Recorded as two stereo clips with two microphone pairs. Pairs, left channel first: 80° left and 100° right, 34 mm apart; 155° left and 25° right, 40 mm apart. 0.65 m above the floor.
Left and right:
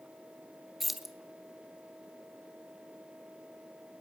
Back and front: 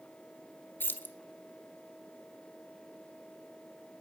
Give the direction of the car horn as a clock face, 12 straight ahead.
I don't hear a car horn.